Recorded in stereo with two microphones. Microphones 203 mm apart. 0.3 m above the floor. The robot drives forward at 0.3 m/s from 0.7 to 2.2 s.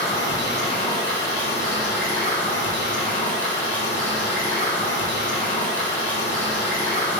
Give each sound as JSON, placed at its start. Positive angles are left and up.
{"t": 0.0, "sound": "running water", "side_deg": 15, "distance_m": 1.3}